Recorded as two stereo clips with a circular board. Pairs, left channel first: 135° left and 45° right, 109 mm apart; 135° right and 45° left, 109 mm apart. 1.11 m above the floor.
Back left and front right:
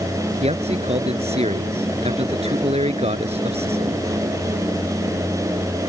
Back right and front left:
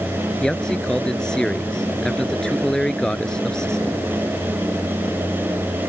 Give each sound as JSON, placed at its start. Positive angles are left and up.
{"t": 0.4, "sound": "a man speaking", "azimuth_deg": -50}